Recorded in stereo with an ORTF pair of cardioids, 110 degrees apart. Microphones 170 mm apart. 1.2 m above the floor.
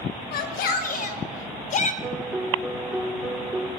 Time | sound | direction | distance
0.3 | a shout | 70° left | 5 m
2.0 | a piano | 10° right | 4.5 m